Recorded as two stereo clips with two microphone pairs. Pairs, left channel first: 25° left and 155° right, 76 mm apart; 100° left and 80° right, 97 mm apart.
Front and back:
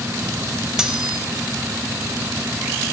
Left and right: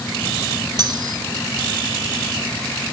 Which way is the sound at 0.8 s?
75° right.